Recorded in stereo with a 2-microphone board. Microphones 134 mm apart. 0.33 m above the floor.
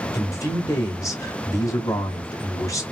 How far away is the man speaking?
About 1.1 m.